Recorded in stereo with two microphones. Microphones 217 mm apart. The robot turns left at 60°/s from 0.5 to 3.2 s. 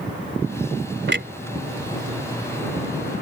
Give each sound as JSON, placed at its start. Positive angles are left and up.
{"t": 1.1, "sound": "a clunk", "side_deg": -60}